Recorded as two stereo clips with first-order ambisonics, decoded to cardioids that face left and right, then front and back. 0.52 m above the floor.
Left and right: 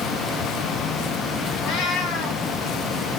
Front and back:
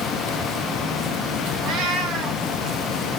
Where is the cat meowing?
135° left, 1.4 m.